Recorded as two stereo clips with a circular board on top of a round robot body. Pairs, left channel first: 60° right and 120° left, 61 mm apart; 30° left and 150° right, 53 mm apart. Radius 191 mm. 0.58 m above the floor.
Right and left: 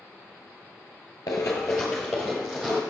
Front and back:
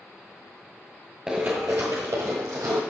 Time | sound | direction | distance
1.3 | running footsteps | 80° right | 0.6 m